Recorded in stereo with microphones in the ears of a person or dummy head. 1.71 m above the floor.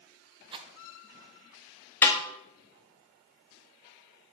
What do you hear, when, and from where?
0.5 s a rattle: 30° right (ahead or behind), 0.7 m
2.0 s a snare drum: 15° left (ahead or behind), 1.3 m